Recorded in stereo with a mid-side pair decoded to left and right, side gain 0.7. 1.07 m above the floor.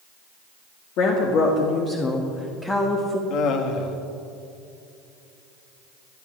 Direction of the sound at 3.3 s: 55° left.